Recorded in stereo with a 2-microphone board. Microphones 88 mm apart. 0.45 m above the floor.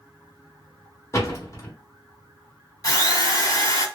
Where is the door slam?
35° left (ahead or behind), 1.0 m.